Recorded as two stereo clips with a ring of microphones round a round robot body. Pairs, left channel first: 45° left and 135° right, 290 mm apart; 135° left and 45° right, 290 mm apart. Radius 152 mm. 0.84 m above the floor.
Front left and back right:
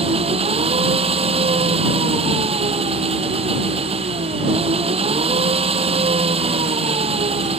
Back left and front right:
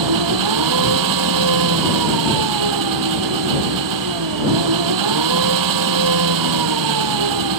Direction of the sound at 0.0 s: 65° right.